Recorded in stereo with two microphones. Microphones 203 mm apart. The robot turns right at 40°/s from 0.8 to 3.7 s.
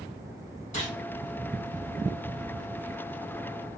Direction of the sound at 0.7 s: 40° left (ahead or behind).